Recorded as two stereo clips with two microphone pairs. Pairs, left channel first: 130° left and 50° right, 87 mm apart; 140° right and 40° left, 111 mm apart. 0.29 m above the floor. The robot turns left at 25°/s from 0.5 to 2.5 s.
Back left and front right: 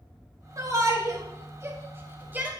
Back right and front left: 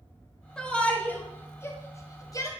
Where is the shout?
60° right, 1.9 m; by 2.5 s 110° right, 1.9 m.